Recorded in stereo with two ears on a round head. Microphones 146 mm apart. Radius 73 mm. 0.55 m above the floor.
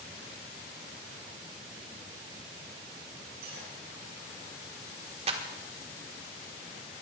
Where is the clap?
40° right (ahead or behind), 1.5 m.